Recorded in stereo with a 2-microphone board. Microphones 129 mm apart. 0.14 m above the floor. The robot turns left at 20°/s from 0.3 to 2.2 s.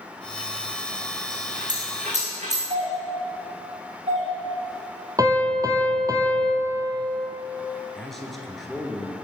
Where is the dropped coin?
80° right, 5 m; by 2.6 s 65° right (ahead or behind), 5 m.